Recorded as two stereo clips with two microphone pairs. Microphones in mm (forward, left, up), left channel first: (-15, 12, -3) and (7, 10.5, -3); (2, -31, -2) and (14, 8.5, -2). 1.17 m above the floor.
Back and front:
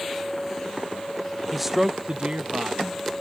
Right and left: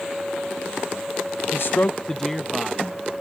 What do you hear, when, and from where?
1.5 s a man speaking: 100° right; by 3.0 s 5° right